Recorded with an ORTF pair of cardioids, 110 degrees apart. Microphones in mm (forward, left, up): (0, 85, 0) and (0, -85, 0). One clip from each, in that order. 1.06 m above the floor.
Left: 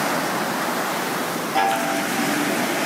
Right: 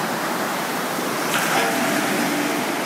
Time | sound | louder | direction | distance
1.6 | a chime | even | 5° left | 1.7 m